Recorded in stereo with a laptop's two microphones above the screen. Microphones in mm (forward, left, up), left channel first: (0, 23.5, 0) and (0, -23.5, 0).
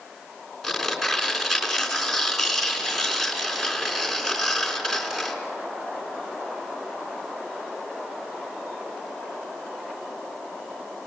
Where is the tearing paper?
Centre (ahead or behind), 4 m.